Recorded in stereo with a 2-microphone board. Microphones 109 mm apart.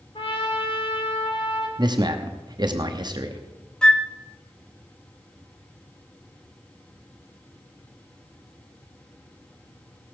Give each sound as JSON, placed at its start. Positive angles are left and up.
{"t": 0.1, "sound": "a trumpet", "side_deg": 65, "distance_m": 2.5}
{"t": 1.8, "sound": "a man speaking", "side_deg": -45, "distance_m": 0.9}
{"t": 3.8, "sound": "a flute", "side_deg": 10, "distance_m": 0.6}